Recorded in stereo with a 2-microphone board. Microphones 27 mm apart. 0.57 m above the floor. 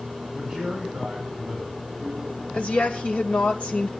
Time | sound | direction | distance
0.3 | a man speaking | 30° right (ahead or behind) | 8.5 m
2.5 | a woman speaking | 55° left (ahead or behind) | 2.5 m